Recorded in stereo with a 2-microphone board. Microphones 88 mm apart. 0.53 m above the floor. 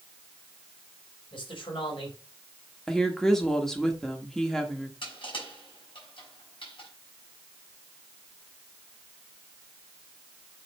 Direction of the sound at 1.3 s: 65° left (ahead or behind).